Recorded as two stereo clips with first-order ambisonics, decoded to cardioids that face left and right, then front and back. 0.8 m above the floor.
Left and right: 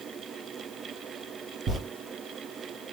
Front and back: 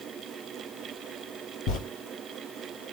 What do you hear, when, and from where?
1.7 s a zipper: 25° right, 5 m